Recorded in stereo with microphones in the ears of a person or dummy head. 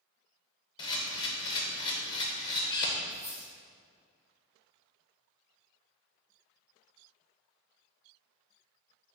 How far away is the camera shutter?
About 0.6 m.